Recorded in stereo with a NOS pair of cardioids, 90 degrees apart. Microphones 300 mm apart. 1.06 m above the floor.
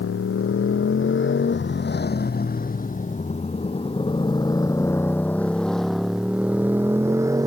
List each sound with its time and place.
0.0 s a motorcycle: 50° left; by 7.5 s 10° right